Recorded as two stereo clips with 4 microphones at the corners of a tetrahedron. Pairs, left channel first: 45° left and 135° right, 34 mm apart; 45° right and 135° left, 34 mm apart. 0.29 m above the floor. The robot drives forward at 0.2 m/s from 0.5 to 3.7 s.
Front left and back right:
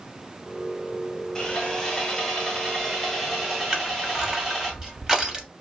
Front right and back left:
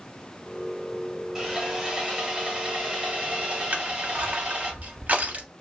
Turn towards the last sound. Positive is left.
turn(degrees=155)